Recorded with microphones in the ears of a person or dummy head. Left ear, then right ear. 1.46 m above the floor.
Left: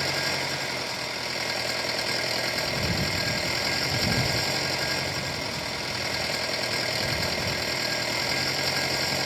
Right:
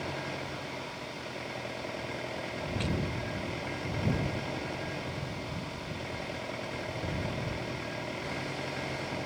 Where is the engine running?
85° left.